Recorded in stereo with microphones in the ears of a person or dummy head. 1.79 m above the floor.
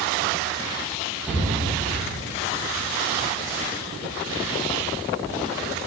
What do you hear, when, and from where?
1.3 s a cupboard door: 10° right (ahead or behind), 2.5 m